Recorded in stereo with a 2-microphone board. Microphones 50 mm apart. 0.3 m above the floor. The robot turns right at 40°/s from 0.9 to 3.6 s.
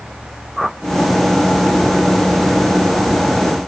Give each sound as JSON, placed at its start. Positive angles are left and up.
{"t": 0.6, "sound": "a whoosh", "side_deg": 0}